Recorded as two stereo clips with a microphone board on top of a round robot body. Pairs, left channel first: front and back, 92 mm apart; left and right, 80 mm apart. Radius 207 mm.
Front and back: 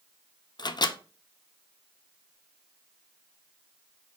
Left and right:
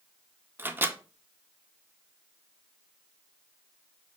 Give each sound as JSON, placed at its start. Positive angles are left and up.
{"t": 0.6, "sound": "a microwave", "azimuth_deg": -30, "distance_m": 0.6}